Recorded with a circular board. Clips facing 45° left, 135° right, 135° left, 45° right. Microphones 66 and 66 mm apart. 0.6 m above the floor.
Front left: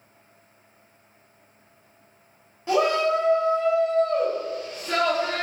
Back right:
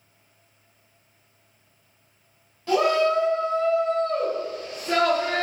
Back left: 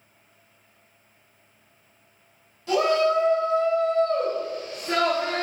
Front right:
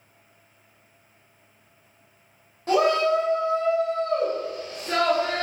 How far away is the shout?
About 1.4 m.